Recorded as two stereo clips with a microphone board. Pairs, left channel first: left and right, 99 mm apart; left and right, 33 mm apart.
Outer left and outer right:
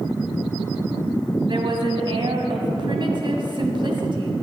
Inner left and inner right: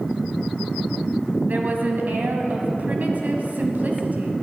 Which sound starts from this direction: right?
A woman speaking, at 1.5 s.